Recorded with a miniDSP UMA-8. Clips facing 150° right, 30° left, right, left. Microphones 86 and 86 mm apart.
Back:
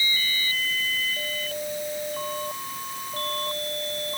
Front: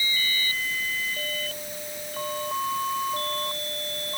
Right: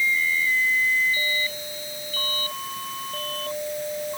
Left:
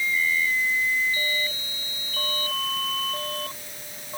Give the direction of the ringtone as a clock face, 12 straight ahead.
No ringtone in this recording.